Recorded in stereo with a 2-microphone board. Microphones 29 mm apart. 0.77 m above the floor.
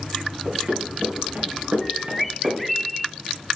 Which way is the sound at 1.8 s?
5° left (ahead or behind).